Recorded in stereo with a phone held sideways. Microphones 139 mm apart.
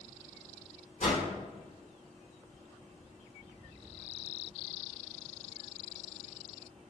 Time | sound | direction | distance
1.0 | a whoosh | 75° left (ahead or behind) | 2.5 m